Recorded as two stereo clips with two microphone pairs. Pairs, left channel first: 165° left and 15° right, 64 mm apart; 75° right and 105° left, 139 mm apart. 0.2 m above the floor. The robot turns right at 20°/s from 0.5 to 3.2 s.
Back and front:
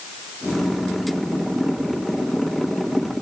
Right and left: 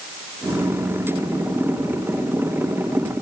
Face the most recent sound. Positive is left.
No sound to turn to.